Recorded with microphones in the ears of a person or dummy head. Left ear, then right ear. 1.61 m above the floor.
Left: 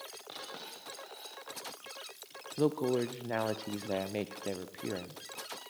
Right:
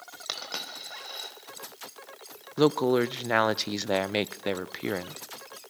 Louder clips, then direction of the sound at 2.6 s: Right 8 dB; 40° right (ahead or behind).